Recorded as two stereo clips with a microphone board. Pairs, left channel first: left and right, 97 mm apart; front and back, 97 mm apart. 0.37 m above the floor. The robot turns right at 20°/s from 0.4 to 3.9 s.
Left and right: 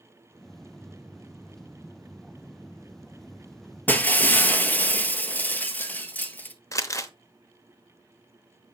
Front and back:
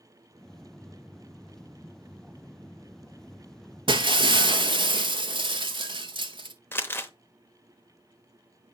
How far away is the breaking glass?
About 0.6 m.